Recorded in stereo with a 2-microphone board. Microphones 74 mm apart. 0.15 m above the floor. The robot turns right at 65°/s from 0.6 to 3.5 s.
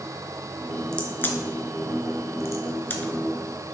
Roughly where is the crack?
Centre.